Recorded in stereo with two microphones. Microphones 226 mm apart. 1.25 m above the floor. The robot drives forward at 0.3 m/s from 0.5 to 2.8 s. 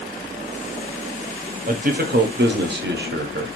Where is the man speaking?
40° right (ahead or behind), 0.6 m; by 3.5 s 50° right (ahead or behind), 0.5 m.